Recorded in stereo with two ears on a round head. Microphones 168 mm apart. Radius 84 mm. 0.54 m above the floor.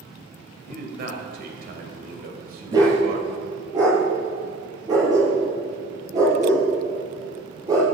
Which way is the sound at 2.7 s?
20° right (ahead or behind).